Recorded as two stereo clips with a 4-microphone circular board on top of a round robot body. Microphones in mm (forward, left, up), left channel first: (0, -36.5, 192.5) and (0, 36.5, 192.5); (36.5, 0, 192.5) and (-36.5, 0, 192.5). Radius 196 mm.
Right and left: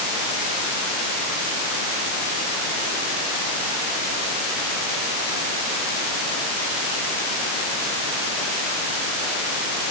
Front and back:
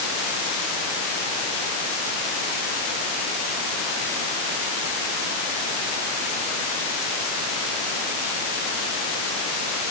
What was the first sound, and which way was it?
Only background noise.